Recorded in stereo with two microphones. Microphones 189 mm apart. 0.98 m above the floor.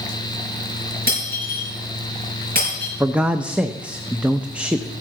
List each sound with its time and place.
1.1 s breaking glass: 50° right (ahead or behind), 5.5 m
3.0 s a man speaking: 5° right (ahead or behind), 0.6 m